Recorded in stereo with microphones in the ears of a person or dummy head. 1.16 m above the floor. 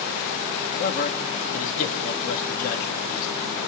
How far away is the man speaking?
About 2.5 m.